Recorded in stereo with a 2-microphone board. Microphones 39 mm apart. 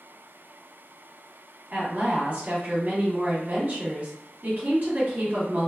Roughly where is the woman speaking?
Right.